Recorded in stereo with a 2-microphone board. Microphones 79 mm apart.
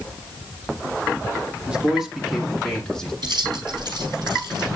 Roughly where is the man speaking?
Centre.